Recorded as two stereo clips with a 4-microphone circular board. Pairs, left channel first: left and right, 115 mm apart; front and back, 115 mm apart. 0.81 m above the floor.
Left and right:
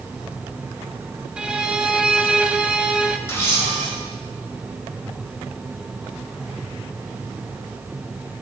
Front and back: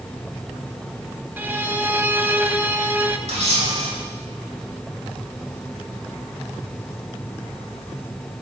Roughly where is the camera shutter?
Behind.